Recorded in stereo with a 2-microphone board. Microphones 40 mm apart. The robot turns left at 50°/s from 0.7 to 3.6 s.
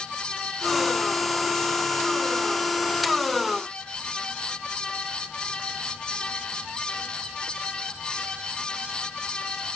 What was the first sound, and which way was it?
Only background noise.